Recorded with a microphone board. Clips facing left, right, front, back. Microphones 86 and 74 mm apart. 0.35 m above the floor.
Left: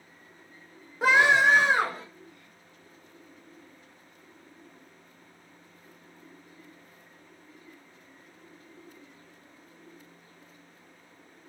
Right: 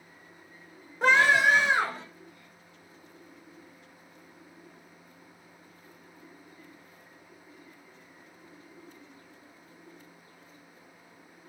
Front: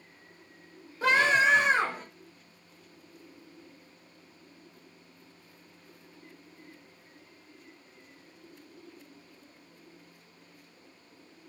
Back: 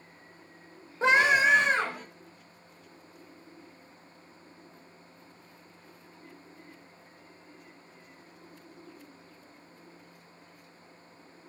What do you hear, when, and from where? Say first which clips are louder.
1.0 s a scream: left 1 dB, back 1 dB; 175° left, 0.9 m; by 2.0 s 65° left, 1.3 m